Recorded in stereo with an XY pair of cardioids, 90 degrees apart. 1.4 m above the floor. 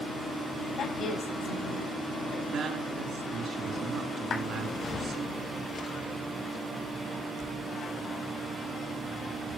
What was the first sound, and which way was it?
A woman speaking, 70° left.